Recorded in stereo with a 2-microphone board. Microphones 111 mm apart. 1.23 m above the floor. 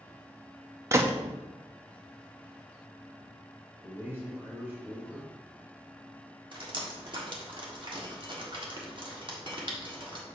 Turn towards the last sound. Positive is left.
turn(degrees=-45)  # may be behind; listen again after turning